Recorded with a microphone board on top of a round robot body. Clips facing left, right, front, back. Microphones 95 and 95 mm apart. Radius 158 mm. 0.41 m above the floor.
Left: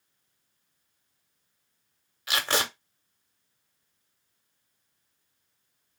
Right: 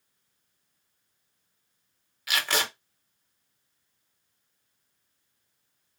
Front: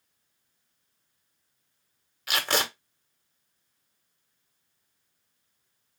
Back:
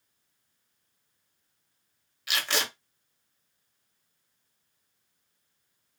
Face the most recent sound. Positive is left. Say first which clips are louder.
# left 1 dB, front 3 dB
turn(degrees=35)